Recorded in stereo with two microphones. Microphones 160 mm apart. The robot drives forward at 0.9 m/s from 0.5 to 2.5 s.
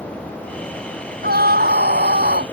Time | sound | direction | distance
1.2 | a scream | 80° right | ?